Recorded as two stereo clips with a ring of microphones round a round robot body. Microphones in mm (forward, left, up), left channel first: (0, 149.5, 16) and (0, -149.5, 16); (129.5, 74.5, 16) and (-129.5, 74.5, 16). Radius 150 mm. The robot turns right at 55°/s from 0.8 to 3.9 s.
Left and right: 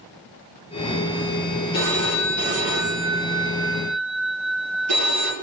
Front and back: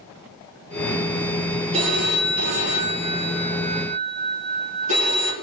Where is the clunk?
No clunk in this recording.